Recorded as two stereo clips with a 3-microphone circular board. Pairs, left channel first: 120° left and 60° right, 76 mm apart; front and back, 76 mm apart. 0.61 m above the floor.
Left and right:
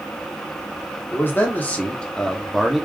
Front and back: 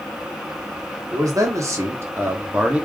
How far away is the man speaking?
About 1.3 m.